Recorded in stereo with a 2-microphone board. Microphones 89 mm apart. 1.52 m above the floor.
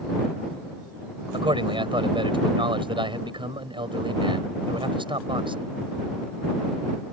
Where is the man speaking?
75° right (ahead or behind).